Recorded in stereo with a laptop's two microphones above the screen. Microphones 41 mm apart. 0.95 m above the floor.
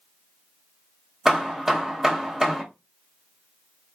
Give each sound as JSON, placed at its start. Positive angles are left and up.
{"t": 1.2, "sound": "hammering", "side_deg": -10, "distance_m": 0.7}